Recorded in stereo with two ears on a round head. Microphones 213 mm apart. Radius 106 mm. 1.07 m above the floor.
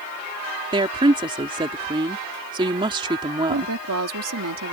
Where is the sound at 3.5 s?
70° right (ahead or behind).